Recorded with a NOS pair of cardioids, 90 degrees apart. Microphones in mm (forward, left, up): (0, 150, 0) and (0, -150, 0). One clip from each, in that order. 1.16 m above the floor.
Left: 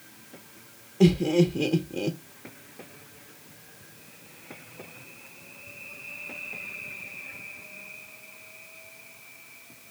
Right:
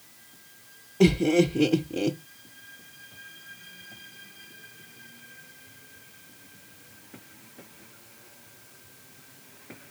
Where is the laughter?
15° right, 0.7 m.